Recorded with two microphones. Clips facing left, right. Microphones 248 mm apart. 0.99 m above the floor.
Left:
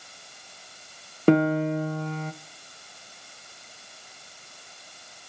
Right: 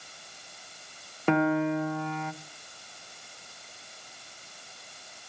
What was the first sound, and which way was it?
A piano, 40° left (ahead or behind).